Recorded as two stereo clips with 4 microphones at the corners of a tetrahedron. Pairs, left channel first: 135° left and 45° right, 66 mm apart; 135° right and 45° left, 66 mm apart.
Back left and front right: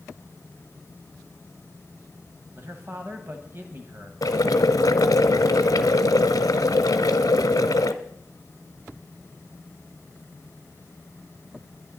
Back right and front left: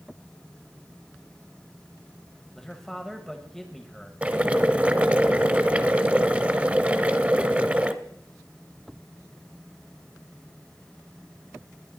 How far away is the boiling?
About 0.7 m.